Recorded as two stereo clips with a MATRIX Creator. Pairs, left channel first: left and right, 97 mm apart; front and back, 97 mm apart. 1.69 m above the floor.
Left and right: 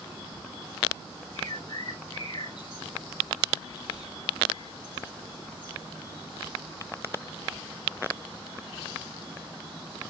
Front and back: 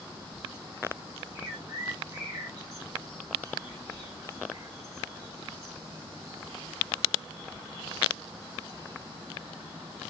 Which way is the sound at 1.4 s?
125° left.